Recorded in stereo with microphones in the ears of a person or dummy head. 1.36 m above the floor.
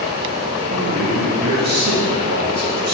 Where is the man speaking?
45° right (ahead or behind), 0.8 m.